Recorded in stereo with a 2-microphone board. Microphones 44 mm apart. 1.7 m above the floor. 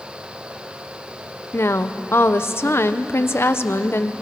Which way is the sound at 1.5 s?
70° left (ahead or behind).